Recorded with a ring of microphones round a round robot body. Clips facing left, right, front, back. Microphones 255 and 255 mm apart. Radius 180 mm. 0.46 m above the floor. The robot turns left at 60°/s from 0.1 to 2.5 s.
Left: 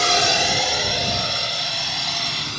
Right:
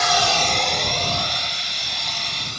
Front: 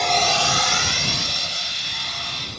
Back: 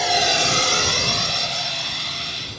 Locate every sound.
0.0 s a drone: 95° left; by 2.6 s 90° left